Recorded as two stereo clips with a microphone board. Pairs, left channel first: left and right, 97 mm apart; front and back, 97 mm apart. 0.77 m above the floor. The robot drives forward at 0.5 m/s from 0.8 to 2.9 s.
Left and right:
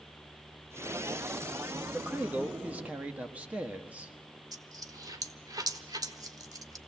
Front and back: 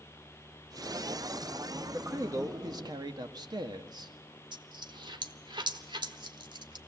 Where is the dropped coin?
140° right, 1.2 m.